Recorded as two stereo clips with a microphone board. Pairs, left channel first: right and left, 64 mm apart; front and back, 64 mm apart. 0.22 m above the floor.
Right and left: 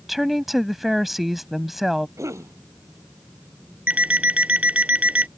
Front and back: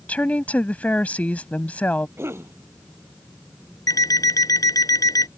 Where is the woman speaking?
10° left.